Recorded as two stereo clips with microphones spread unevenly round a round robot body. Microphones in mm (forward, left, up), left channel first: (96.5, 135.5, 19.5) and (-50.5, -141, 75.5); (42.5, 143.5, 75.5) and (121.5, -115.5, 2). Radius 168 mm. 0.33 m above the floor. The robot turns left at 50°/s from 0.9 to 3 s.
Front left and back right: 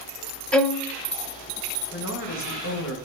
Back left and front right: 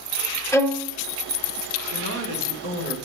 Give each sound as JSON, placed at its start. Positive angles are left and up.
{"t": 0.5, "sound": "a violin", "azimuth_deg": 5, "distance_m": 0.8}
{"t": 1.9, "sound": "a man speaking", "azimuth_deg": 105, "distance_m": 1.9}